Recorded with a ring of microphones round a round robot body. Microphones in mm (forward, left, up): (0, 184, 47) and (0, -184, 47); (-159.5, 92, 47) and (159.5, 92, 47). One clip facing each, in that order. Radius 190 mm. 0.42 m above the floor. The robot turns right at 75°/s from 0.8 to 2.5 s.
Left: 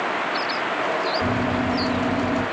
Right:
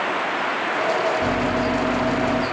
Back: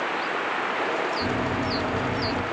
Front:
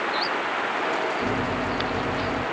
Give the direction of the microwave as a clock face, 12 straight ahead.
8 o'clock.